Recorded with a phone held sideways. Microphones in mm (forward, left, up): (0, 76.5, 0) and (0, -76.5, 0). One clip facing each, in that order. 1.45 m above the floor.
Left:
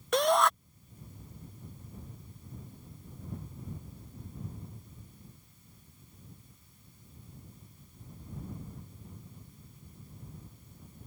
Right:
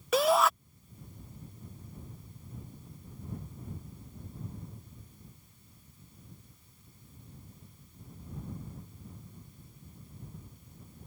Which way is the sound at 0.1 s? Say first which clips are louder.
Right 1 dB; 5° right (ahead or behind).